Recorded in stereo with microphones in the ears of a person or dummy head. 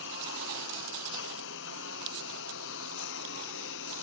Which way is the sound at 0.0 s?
70° left (ahead or behind).